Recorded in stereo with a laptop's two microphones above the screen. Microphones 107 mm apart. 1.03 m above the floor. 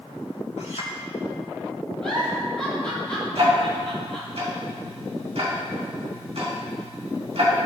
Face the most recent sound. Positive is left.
turn(degrees=-65)  # may be behind; listen again after turning